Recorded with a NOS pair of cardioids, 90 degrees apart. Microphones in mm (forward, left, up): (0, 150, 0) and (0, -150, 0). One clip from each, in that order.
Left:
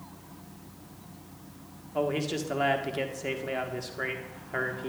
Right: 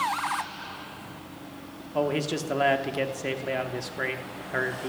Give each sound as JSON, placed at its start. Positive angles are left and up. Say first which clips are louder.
{"t": 1.9, "sound": "a man speaking", "louder": "right 2 dB", "azimuth_deg": -15, "distance_m": 1.3}